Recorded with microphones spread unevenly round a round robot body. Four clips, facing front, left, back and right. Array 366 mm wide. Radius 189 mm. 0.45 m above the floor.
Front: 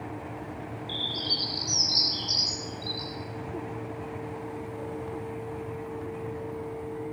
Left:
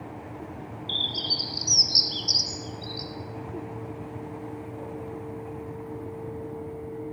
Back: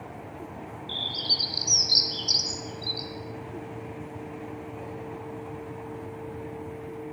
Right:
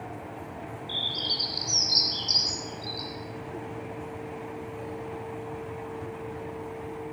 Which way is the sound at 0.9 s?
135° left.